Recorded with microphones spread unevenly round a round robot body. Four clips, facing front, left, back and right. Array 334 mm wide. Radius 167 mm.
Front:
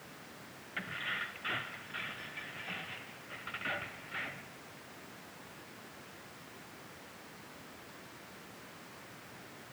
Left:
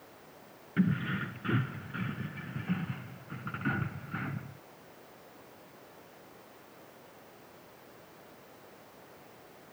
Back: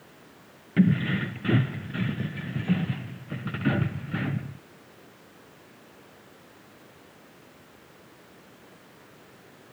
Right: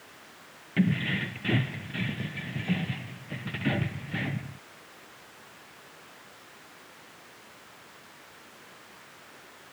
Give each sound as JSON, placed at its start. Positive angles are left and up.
{"t": 0.8, "sound": "keys jangling", "azimuth_deg": -170}